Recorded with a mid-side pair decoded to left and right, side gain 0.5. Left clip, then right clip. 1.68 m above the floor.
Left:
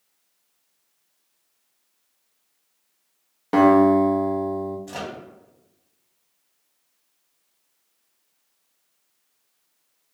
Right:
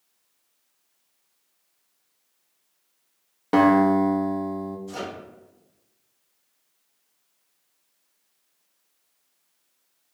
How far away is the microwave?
About 0.9 m.